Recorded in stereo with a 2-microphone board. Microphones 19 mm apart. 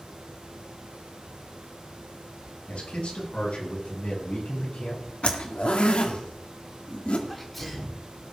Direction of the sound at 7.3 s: 5° left (ahead or behind).